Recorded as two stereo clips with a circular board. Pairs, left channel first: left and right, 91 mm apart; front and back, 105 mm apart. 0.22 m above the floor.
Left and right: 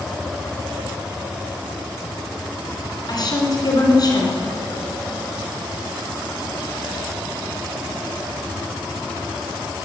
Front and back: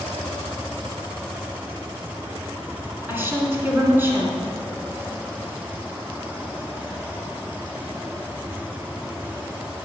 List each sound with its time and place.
3.1 s a woman speaking: 115° left, 2.5 m